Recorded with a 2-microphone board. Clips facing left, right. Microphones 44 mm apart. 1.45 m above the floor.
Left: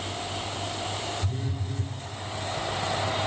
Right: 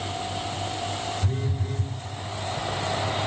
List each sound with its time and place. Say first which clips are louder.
1.2 s a phone buzzing: right 3 dB; 55° right (ahead or behind), 6 m